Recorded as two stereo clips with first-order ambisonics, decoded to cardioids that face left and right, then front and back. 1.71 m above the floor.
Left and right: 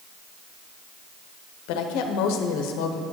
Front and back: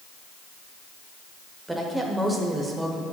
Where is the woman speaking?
95° left, 1.0 m.